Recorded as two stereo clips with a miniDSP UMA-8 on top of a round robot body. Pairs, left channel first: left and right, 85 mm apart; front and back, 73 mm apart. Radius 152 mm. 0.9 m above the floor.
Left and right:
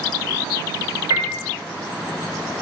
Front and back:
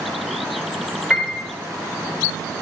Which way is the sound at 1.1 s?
95° right.